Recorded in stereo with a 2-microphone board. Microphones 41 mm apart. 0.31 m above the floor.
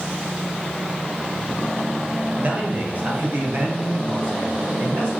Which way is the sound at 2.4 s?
35° right (ahead or behind).